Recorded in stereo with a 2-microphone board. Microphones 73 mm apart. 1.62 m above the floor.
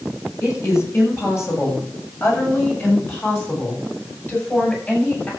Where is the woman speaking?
40° left (ahead or behind), 8 m; by 5.3 s 25° left (ahead or behind), 9 m.